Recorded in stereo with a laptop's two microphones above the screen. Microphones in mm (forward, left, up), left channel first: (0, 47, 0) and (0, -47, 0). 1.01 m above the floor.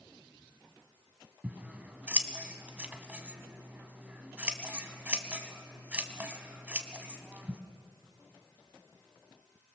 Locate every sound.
1.4 s scissors: 15° right (ahead or behind), 1.3 m